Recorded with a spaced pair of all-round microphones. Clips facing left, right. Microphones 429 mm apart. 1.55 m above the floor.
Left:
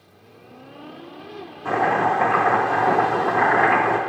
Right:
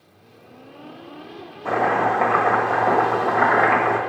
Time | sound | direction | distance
1.6 | chopping | 30° left (ahead or behind) | 1.6 m